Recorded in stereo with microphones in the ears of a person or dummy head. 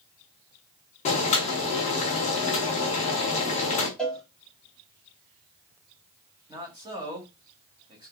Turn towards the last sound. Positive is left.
turn(degrees=-25)  # may be behind; listen again after turning